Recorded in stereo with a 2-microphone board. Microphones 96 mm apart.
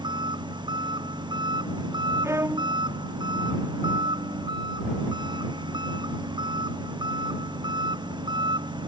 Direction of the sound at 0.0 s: 50° right (ahead or behind).